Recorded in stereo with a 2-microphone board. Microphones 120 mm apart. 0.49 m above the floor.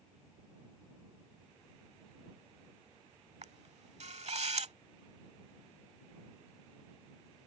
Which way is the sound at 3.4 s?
60° right (ahead or behind).